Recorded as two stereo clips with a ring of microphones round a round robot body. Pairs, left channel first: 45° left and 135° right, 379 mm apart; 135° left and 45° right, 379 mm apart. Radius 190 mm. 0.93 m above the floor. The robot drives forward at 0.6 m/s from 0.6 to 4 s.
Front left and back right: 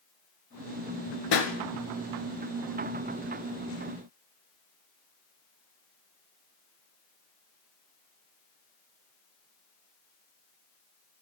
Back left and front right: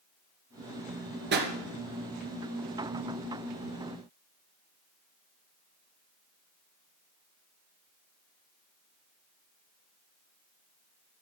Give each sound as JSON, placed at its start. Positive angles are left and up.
{"t": 1.3, "sound": "a pop", "azimuth_deg": 15, "distance_m": 2.0}